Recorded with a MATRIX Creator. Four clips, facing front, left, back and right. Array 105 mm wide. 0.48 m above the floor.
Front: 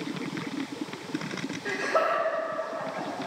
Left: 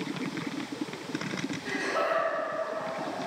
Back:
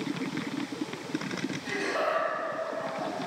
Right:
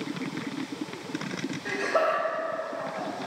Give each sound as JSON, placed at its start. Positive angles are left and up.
{"t": 1.6, "sound": "laughter", "azimuth_deg": -50, "distance_m": 1.9}